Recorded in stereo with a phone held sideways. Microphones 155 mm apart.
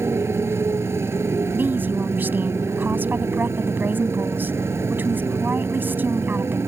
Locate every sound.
0.0 s a motorcycle: 15° right (ahead or behind)
1.5 s a woman speaking: 10° right (ahead or behind)